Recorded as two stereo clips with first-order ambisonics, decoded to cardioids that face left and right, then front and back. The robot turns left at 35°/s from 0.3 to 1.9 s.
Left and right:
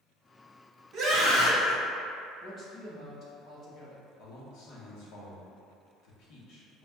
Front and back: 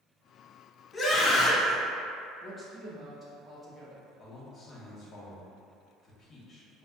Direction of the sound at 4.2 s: 70° left.